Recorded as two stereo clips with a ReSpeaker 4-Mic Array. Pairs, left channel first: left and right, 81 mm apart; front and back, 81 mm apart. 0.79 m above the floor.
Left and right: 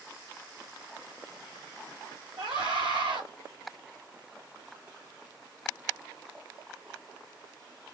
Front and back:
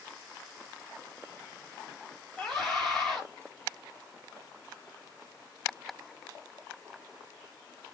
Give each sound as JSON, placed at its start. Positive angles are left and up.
{"t": 2.4, "sound": "a scream", "azimuth_deg": -85, "distance_m": 3.5}